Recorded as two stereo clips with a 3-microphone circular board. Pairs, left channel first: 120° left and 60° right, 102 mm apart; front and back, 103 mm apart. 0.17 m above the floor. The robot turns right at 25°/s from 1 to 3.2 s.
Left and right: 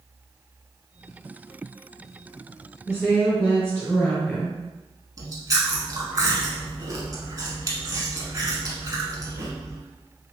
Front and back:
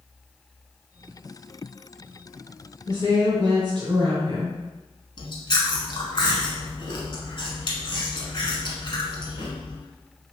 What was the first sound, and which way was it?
A woman speaking, straight behind.